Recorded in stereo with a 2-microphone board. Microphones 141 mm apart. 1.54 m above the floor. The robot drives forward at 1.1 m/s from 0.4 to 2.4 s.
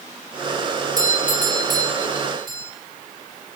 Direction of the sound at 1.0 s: 65° right (ahead or behind).